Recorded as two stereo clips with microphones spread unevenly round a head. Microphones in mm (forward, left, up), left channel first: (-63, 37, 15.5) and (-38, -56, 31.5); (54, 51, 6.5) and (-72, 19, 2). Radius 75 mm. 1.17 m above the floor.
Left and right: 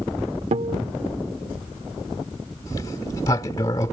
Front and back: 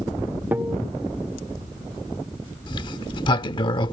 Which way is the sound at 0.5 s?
85° right.